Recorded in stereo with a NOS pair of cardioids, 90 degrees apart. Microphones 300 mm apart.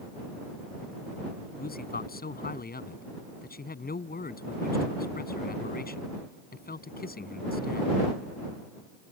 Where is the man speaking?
30° left.